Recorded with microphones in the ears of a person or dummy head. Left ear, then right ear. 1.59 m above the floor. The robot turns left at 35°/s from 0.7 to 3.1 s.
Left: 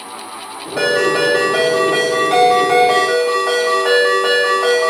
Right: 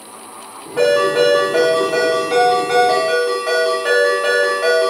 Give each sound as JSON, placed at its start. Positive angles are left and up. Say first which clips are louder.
{"t": 0.8, "sound": "a ringtone", "louder": "right 1 dB", "azimuth_deg": 80, "distance_m": 1.9}